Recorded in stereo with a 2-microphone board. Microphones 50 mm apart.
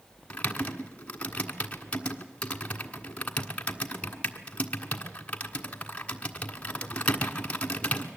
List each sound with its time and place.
0.3 s typing on a keyboard: 25° left (ahead or behind), 1.5 m